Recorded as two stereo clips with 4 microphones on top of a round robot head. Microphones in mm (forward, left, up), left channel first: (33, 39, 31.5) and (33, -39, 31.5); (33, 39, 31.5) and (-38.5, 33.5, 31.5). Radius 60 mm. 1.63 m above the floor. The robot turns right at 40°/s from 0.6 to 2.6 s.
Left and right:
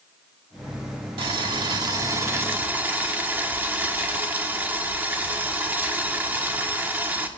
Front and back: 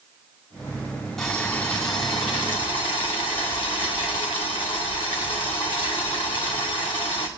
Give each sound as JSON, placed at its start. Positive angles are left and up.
{"t": 1.2, "sound": "boiling", "azimuth_deg": -80, "distance_m": 1.3}